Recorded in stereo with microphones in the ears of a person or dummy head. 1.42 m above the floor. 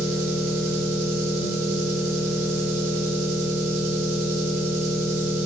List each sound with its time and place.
0.0 s an engine running: 50° right (ahead or behind), 0.9 m